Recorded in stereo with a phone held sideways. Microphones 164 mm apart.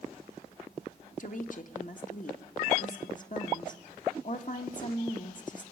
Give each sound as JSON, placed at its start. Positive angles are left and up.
{"t": 1.2, "sound": "a woman speaking", "side_deg": 50, "distance_m": 1.2}